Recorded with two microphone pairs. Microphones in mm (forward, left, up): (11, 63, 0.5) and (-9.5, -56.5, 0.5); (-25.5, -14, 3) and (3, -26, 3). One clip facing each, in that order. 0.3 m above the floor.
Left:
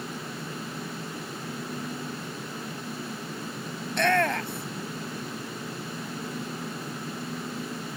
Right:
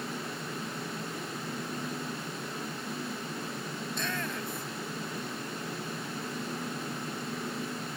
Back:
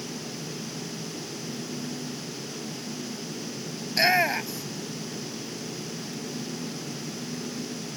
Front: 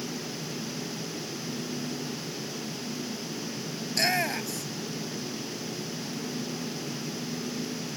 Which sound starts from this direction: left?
A shout, at 3.9 s.